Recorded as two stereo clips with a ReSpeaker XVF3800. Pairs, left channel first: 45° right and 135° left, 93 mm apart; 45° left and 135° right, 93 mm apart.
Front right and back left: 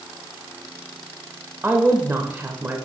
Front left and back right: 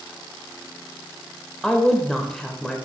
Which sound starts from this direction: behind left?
A woman speaking, at 1.6 s.